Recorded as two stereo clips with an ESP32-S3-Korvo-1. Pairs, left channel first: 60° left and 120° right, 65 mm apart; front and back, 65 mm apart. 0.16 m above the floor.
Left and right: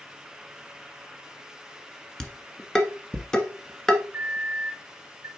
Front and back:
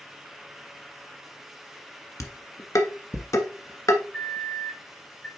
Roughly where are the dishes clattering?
Ahead.